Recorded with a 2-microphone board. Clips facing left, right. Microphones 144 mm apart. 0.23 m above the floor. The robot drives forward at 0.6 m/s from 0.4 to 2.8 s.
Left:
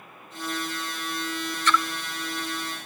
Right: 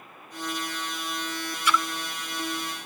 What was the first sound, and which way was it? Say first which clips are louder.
A splash: left 1 dB; 10° right (ahead or behind).